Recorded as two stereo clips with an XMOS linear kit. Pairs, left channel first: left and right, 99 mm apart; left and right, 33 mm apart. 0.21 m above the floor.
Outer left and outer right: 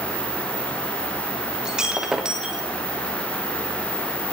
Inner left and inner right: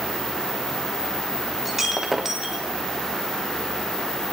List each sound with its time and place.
1.6 s breaking glass: 5° right (ahead or behind), 3.5 m